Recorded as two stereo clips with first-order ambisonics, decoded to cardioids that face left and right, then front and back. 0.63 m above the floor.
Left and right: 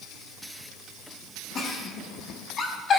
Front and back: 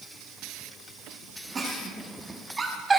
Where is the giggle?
115° left, 1.0 m.